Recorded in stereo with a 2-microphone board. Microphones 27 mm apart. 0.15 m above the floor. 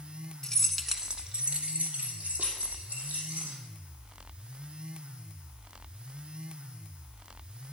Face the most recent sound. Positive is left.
turn(degrees=-70)  # may be behind; listen again after turning